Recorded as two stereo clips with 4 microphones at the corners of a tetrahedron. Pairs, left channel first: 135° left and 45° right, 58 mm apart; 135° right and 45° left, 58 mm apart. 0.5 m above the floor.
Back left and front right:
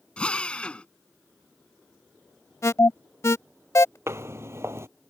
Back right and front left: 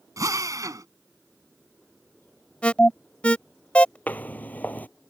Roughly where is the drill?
Ahead left.